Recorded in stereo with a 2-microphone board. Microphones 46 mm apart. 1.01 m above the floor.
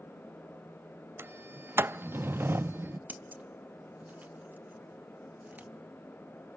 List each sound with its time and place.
1.2 s a sliding door: 55° right (ahead or behind), 0.5 m
3.1 s scissors: 35° right (ahead or behind), 1.3 m